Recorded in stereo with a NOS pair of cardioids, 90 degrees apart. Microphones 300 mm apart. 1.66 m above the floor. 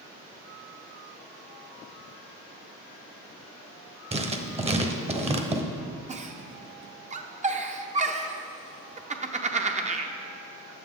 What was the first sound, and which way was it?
Writing, 20° right.